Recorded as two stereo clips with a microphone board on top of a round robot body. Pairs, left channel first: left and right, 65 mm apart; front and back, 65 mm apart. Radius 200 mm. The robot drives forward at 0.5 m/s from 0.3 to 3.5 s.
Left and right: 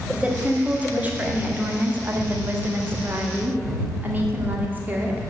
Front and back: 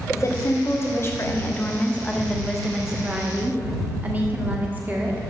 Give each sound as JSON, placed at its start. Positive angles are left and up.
{"t": 0.1, "sound": "a woman speaking", "azimuth_deg": -25, "distance_m": 1.6}